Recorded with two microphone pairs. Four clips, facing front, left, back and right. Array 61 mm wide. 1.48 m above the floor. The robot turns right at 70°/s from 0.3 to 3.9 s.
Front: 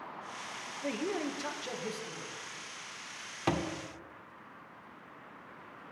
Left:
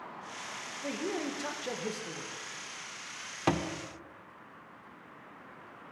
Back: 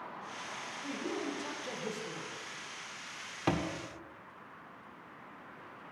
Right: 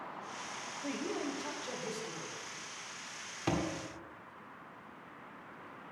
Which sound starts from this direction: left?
A thud, at 3.5 s.